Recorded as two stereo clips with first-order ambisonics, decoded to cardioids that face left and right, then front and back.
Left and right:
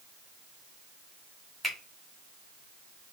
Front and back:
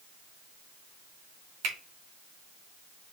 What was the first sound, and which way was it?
A finger snap, 170° left.